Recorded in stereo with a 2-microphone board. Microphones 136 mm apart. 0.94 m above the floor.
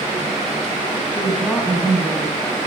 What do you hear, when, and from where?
1.1 s a woman speaking: 5° left (ahead or behind), 7.5 m